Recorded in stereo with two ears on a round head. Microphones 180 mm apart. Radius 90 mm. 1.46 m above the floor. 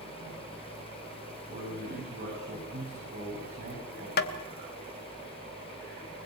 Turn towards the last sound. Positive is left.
turn(degrees=50)  # may be behind; listen again after turning